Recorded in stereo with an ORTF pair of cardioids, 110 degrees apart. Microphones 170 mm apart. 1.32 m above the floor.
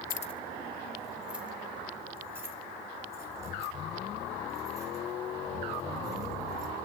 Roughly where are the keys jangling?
Ahead left.